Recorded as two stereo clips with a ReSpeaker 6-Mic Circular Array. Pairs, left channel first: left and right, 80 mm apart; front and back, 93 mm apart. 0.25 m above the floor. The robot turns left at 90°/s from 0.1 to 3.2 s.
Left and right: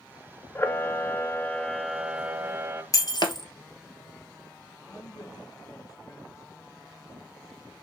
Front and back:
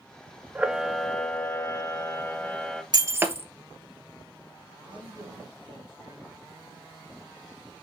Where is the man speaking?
135° left, 4 m.